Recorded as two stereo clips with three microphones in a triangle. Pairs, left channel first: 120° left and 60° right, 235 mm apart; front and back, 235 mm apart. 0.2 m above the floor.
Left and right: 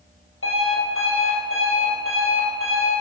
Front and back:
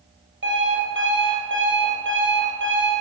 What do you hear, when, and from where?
0.4 s an alarm clock: 145° left, 3 m